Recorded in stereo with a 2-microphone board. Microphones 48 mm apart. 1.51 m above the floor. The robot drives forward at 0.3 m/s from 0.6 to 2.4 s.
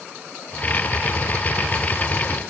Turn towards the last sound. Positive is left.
No sound to turn to.